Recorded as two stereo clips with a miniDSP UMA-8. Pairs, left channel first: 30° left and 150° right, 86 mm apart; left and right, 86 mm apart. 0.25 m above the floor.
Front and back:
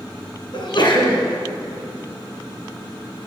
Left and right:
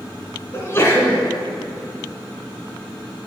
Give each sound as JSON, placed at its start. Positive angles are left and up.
{"t": 0.5, "sound": "a sneeze", "azimuth_deg": 35, "distance_m": 2.5}